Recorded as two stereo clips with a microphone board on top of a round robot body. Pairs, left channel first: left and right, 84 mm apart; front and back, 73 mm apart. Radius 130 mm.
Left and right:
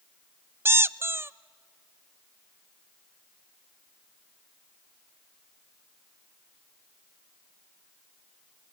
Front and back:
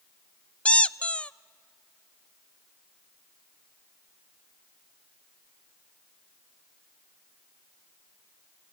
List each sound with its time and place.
0.7 s a squeak: 60° right, 0.5 m